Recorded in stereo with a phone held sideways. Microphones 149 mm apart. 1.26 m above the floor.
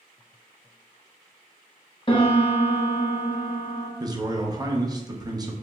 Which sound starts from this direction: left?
A piano, at 2.1 s.